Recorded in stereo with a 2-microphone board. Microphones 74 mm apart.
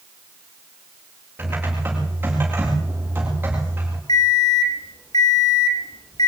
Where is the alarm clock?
70° left (ahead or behind), 2.5 m.